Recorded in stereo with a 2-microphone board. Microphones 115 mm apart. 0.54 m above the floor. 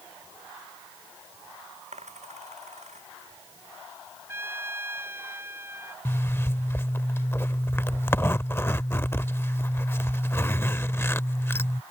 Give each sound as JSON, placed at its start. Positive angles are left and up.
{"t": 1.9, "sound": "a dropped coin", "side_deg": -80}
{"t": 4.3, "sound": "a trumpet", "side_deg": -20}
{"t": 6.0, "sound": "a zipper", "side_deg": 20}